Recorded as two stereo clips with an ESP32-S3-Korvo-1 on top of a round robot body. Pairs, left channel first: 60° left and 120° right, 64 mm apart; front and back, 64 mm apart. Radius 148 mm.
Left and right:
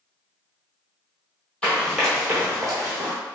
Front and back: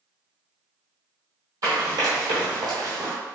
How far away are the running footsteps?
About 0.9 m.